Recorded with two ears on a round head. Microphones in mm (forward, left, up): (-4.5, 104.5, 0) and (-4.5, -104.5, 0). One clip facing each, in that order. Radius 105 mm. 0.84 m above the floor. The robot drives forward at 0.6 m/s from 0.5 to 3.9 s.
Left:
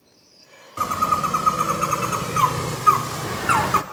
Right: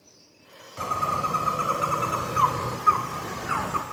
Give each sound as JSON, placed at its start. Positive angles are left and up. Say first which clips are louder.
{"t": 0.8, "sound": "a bird", "louder": "left 3 dB", "side_deg": 20, "distance_m": 2.0}